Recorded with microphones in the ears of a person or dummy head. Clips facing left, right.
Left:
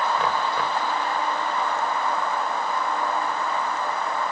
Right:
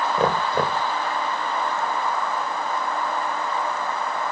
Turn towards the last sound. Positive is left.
turn(degrees=-35)  # may be behind; listen again after turning